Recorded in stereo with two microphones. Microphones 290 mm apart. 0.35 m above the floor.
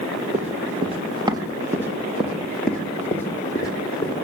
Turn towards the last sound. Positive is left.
turn(degrees=15)  # may be behind; listen again after turning